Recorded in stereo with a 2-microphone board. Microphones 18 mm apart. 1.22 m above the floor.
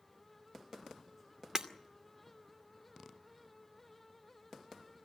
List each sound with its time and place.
1.6 s breaking glass: 35° right (ahead or behind), 2.5 m